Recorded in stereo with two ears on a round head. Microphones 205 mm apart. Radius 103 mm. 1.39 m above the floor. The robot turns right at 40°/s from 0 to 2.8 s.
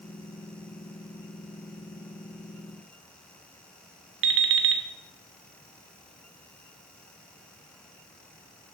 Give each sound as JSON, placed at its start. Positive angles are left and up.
{"t": 4.2, "sound": "an alarm clock", "side_deg": -55, "distance_m": 1.3}